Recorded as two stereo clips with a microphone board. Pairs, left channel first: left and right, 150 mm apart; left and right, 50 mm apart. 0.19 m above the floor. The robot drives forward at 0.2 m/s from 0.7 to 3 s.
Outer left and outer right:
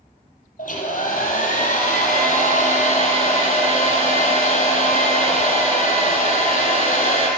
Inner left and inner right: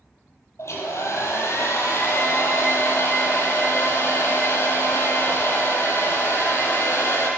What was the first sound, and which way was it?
A hair dryer, 60° left (ahead or behind).